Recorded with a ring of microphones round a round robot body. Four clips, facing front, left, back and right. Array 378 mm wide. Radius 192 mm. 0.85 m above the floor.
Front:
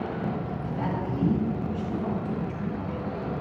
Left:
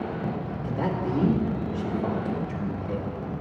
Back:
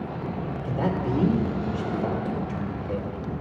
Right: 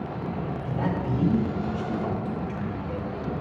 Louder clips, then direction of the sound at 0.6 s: Left 1 dB, back 5 dB; 135° left.